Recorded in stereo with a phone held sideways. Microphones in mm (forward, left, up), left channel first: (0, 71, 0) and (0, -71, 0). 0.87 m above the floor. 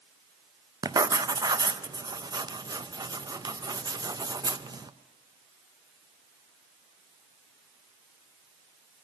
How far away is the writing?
About 0.5 m.